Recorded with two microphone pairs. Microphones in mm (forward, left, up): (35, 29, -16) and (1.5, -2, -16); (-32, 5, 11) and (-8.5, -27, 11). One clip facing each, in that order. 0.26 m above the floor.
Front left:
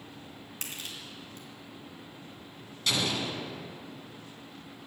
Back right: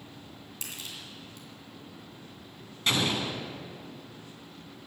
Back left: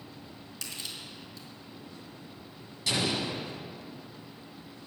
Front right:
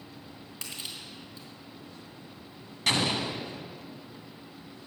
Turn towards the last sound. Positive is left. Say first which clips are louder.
# back right 2 dB, front right 2 dB
turn(degrees=-80)